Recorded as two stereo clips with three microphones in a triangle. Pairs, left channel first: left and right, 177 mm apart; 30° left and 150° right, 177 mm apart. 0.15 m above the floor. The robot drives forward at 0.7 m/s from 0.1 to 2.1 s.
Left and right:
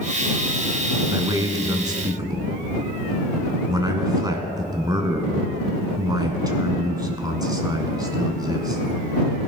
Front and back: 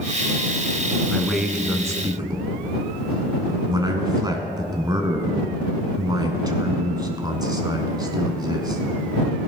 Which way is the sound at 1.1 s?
45° right.